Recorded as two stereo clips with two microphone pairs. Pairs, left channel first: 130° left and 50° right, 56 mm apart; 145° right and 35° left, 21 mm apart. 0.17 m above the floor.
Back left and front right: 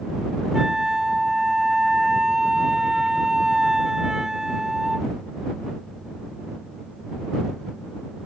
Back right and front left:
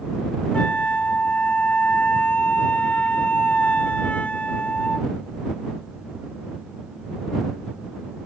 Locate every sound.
0.5 s a flute: 130° right